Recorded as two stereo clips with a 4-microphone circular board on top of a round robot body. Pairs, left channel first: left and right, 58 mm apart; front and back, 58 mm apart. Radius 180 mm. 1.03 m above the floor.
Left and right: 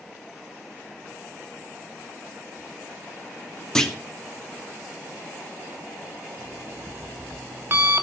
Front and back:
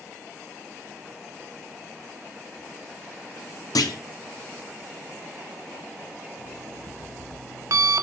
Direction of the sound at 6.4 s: 145° right.